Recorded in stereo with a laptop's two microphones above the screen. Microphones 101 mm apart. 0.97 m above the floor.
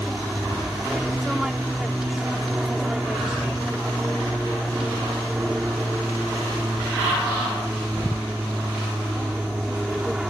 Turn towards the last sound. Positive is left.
turn(degrees=-5)  # may be behind; listen again after turning